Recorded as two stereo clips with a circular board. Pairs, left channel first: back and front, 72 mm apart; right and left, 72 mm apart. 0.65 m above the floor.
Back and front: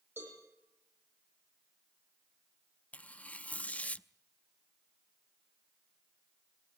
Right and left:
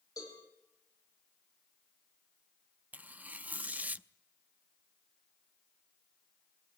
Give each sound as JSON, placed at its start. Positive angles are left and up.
{"t": 0.2, "sound": "a cowbell", "azimuth_deg": -55, "distance_m": 9.0}
{"t": 2.9, "sound": "tearing paper", "azimuth_deg": 130, "distance_m": 0.6}